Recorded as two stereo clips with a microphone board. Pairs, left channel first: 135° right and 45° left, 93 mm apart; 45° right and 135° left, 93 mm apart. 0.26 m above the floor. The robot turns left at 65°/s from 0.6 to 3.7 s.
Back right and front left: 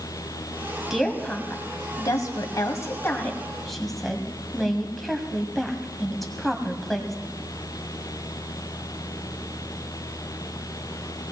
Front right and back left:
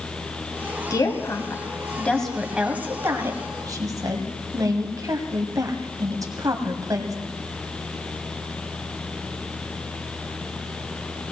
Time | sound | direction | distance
0.9 | a woman speaking | 40° right | 1.8 m